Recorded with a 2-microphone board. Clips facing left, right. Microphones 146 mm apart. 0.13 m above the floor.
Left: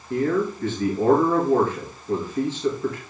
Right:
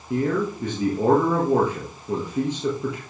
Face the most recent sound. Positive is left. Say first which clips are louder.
# left 1 dB
turn(degrees=-15)  # may be behind; listen again after turning